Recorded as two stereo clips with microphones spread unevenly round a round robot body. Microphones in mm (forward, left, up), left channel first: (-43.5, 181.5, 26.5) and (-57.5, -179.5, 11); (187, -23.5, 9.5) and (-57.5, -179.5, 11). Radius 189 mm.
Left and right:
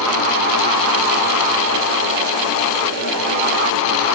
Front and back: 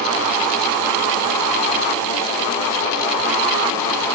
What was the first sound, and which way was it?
Only background noise.